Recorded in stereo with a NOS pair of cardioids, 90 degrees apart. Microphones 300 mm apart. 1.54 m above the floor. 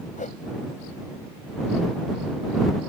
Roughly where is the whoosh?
Ahead left.